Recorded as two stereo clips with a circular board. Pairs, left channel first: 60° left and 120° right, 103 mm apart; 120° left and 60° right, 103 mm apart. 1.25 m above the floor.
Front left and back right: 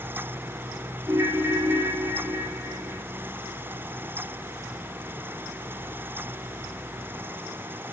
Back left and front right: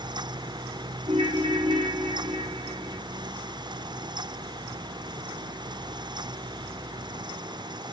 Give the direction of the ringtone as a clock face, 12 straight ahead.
2 o'clock.